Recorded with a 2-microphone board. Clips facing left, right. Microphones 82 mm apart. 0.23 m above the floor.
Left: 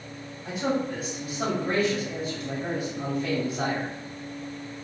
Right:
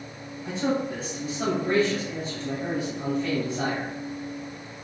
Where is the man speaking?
10° left (ahead or behind), 1.5 m.